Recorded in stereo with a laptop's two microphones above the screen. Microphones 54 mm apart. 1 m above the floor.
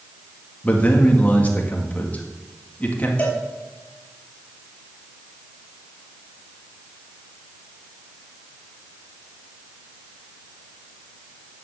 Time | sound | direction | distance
0.6 | a man speaking | 30° left (ahead or behind) | 1.7 m
3.2 | a cowbell | 25° left (ahead or behind) | 4 m